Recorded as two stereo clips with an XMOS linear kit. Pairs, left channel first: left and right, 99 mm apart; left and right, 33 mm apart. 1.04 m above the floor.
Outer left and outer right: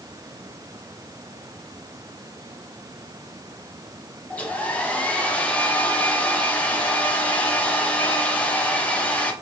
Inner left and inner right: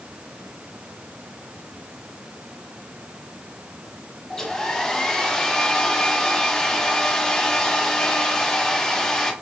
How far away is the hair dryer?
About 0.7 m.